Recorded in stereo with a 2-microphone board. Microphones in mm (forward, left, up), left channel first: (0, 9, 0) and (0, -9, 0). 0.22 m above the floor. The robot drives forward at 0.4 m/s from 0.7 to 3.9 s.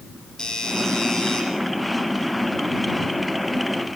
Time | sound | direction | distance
0.4 | a doorbell | 30° left (ahead or behind) | 9.5 m